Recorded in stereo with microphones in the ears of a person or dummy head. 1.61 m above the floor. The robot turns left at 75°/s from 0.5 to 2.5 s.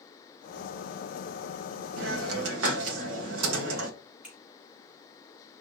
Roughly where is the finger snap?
Centre.